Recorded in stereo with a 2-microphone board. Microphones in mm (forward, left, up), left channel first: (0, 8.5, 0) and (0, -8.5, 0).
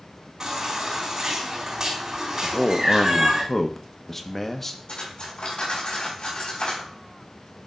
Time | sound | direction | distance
0.4 | a baby crying | 30° right (ahead or behind) | 4 m
2.4 | a man speaking | 20° left (ahead or behind) | 1.2 m
4.9 | cutlery clinking | 75° left (ahead or behind) | 4.5 m